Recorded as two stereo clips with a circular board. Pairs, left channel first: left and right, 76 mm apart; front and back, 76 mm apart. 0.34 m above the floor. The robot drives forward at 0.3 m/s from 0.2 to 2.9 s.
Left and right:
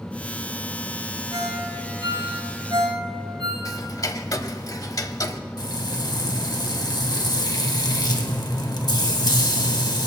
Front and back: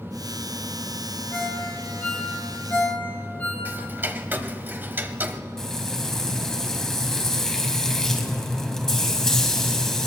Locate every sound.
1.3 s a ringtone: 70° right, 7.5 m
3.6 s ticking: 120° left, 0.8 m
5.6 s frying: 80° left, 1.6 m